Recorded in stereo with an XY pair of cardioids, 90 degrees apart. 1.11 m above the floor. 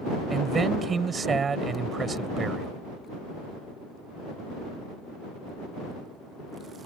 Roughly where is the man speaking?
Ahead right.